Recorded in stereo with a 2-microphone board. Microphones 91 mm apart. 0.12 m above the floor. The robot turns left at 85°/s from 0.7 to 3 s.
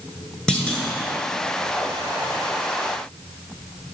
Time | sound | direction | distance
0.5 | a clunk | 10° left (ahead or behind) | 1.1 m